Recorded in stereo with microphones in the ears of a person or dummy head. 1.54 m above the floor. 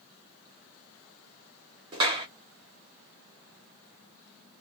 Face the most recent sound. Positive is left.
turn(degrees=-25)  # may be behind; listen again after turning